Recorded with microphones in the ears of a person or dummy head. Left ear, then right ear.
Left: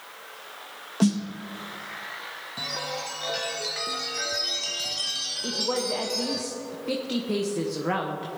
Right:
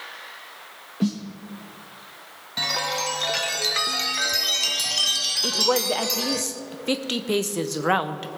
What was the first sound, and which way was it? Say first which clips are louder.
A snare drum: left 2 dB; 30° left (ahead or behind).